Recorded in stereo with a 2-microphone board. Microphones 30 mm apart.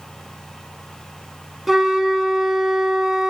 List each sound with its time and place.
1.7 s a flute: 5° right (ahead or behind), 1.6 m